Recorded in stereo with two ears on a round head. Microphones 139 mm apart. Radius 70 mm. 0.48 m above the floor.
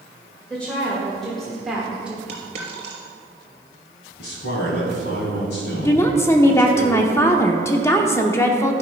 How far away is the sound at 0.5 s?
About 2 m.